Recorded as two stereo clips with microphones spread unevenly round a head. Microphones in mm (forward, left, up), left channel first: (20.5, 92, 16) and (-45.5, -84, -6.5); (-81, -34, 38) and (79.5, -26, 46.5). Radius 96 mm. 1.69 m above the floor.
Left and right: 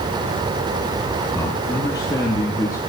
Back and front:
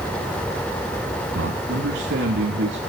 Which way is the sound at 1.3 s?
5° right.